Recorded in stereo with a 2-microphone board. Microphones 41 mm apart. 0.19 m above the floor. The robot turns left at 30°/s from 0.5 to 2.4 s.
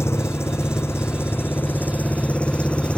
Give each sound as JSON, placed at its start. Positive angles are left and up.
{"t": 0.0, "sound": "an engine running", "azimuth_deg": 85}